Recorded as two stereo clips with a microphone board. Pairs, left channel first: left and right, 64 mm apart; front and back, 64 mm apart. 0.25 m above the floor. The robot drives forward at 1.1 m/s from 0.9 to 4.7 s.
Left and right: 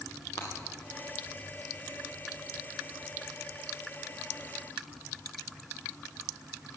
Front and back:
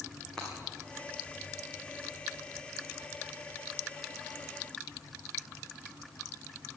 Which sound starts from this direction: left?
Breaking glass, at 0.4 s.